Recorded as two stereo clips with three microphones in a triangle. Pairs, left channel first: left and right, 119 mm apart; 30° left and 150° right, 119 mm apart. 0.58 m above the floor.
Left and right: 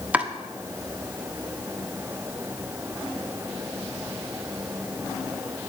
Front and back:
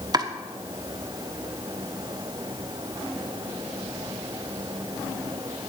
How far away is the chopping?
About 1.1 m.